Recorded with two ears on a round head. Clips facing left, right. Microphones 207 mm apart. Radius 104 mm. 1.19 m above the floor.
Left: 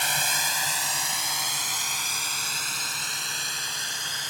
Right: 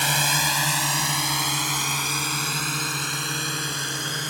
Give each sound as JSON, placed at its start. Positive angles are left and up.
{"t": 0.0, "sound": "a drone", "side_deg": -60}